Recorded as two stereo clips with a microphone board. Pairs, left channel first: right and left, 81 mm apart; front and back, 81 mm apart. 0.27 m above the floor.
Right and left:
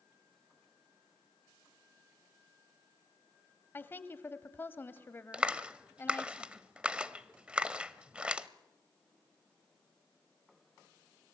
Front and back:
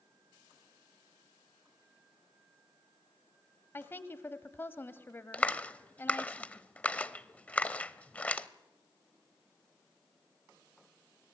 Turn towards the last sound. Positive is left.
turn(degrees=40)